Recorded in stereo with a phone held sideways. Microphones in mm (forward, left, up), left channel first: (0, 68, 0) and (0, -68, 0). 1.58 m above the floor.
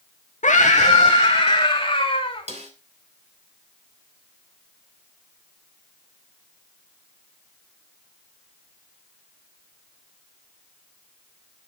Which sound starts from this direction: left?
A scream, at 0.4 s.